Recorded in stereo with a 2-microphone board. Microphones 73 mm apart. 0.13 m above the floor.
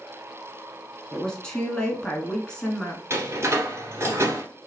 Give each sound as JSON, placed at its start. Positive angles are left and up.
{"t": 1.1, "sound": "a woman speaking", "side_deg": 10, "distance_m": 1.1}
{"t": 3.1, "sound": "a door slam", "side_deg": -35, "distance_m": 1.7}